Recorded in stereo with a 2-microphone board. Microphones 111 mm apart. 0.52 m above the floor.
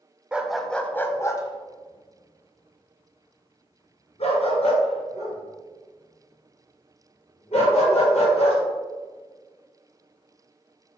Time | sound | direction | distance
0.3 | a dog barking | 10° right (ahead or behind) | 0.7 m